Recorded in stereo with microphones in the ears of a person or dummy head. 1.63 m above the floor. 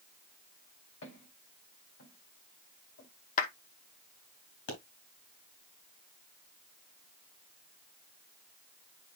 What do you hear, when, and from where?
1.0 s footsteps: 70° left (ahead or behind), 8 m; by 3.1 s 75° left (ahead or behind), 7 m
3.4 s a clap: 45° left (ahead or behind), 1.1 m
4.7 s a pop: 60° left (ahead or behind), 3 m